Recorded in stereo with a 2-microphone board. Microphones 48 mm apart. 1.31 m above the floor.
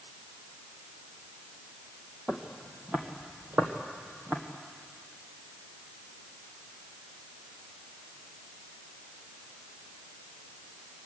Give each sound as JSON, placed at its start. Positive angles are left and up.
{"t": 2.3, "sound": "footsteps", "side_deg": -15, "distance_m": 2.0}